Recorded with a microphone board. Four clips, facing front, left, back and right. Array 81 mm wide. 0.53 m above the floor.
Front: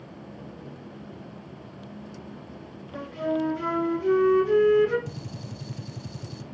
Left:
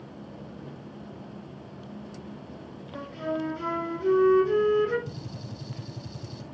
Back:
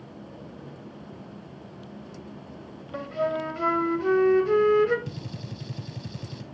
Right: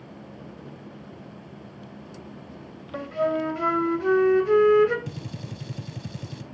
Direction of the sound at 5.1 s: 110° right.